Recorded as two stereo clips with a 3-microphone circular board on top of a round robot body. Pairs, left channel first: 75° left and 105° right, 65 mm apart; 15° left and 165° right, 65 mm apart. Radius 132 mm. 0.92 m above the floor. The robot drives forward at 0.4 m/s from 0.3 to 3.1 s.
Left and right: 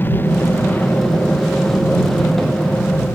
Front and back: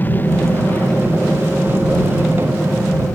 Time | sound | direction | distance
0.0 | an aircraft | 50° left | ?